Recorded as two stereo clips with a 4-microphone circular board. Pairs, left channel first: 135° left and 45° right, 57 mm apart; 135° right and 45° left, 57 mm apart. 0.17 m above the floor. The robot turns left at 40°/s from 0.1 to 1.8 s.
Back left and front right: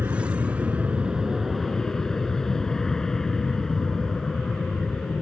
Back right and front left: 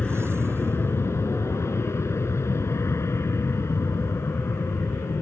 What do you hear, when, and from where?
0.0 s an aircraft: 75° right; by 5.2 s 145° right